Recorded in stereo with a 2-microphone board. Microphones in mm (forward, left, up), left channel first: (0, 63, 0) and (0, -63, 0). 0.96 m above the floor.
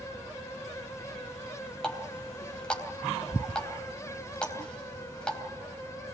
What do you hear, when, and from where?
1.8 s a running tap: 5° left (ahead or behind), 3.5 m